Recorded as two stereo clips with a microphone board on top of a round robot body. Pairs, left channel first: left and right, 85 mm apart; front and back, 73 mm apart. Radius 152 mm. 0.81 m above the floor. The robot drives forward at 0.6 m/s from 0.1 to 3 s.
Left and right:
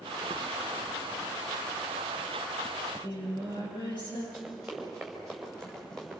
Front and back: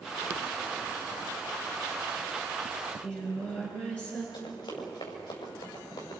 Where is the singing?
70° left, 9.5 m.